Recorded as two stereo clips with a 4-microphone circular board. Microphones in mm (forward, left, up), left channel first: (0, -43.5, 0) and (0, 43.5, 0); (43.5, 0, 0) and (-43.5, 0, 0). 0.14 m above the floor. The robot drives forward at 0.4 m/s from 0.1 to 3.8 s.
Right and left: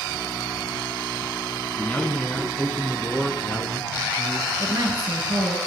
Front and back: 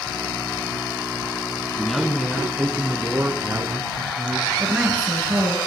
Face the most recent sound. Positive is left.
turn(degrees=110)